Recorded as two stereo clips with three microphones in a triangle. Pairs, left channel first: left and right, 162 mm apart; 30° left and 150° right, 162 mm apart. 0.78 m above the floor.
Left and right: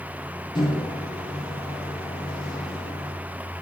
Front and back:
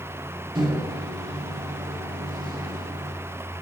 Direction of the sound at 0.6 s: 150° left.